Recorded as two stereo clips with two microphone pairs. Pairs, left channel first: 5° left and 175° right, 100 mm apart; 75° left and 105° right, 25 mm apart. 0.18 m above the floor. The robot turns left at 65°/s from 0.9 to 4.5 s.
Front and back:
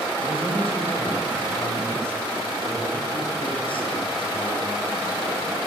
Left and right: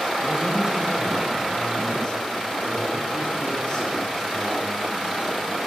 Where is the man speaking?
160° right, 3 m; by 5.4 s 35° right, 3 m.